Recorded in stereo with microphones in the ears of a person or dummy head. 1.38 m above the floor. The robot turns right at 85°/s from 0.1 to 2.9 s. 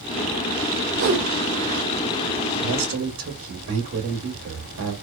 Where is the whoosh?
75° right, 0.6 m; by 1.3 s 40° right, 0.6 m.